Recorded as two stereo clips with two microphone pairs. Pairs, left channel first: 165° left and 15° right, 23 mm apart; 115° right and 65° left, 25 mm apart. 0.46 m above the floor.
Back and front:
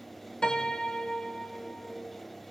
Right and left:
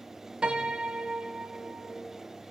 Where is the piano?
110° left, 1.9 m.